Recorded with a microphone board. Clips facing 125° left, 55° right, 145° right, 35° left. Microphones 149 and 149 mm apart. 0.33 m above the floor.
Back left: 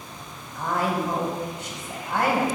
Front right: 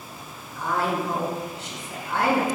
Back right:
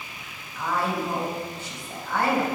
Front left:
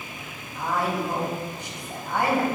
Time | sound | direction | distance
0.6 | a woman speaking | 105° left | 2 m